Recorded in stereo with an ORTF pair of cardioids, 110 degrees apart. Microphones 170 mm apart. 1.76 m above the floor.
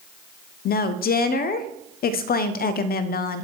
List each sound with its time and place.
0.7 s a woman speaking: 60° left, 0.7 m